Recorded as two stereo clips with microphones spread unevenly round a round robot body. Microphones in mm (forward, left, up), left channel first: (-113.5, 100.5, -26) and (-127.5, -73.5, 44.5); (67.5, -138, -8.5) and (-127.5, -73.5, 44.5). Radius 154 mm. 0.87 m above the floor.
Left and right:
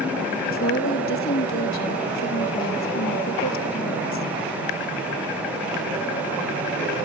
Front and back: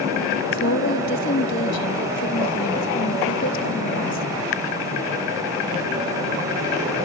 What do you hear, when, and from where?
0.5 s a woman speaking: 40° left